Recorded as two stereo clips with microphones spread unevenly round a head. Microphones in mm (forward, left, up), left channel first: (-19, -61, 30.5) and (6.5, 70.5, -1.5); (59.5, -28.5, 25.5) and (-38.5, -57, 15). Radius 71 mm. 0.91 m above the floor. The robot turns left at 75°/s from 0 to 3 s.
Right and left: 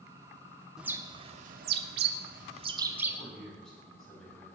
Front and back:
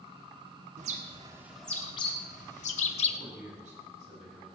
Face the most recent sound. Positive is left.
turn(degrees=175)